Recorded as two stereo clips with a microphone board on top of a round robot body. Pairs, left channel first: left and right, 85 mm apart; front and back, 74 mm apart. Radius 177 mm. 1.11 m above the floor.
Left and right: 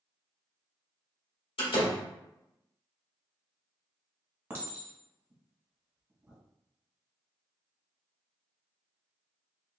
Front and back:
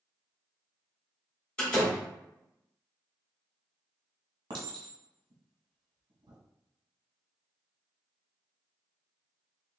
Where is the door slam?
80° left, 2.0 m.